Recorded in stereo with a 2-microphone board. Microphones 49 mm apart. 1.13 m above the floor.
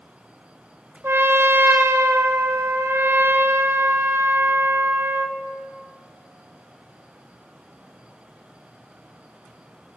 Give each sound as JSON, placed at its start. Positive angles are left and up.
{"t": 1.0, "sound": "a trumpet", "side_deg": -65, "distance_m": 1.1}